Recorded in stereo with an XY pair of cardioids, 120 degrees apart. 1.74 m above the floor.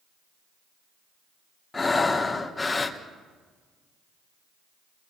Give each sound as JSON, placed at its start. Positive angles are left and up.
{"t": 1.7, "sound": "breathing", "azimuth_deg": 15, "distance_m": 1.5}